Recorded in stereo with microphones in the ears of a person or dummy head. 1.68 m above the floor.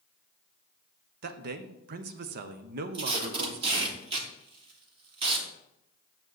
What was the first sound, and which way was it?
A man speaking, 55° right (ahead or behind).